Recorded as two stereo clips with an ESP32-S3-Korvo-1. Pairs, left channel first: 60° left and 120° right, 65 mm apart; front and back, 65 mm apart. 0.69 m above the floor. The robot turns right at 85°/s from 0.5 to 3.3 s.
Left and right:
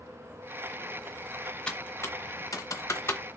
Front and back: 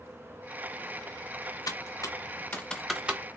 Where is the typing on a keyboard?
15° right, 0.7 m; by 3.2 s 120° left, 0.7 m.